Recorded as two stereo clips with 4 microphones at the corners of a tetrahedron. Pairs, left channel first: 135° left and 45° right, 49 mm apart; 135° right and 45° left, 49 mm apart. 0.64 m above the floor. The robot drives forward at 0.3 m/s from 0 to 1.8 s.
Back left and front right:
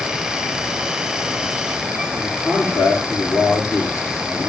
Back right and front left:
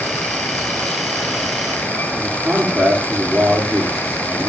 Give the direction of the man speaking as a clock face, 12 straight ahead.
8 o'clock.